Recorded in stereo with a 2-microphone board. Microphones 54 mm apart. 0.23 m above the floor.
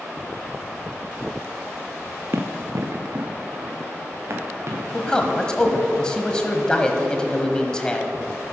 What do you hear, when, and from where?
2.3 s running footsteps: 50° right (ahead or behind), 0.9 m
4.9 s a man speaking: 15° left (ahead or behind), 1.0 m